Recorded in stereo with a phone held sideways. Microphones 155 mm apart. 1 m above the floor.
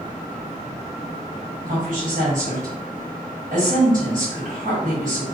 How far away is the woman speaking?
About 1.5 m.